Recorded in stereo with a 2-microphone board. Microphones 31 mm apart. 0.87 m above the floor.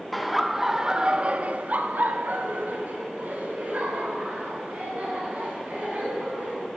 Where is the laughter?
Centre (ahead or behind), 2 m; by 6.7 s 55° right (ahead or behind), 8 m.